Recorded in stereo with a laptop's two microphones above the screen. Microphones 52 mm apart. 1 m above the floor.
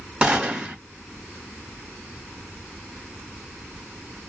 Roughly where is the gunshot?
Right.